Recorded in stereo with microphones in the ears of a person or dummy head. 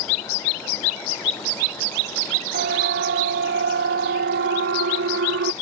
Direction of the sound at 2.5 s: 50° right (ahead or behind).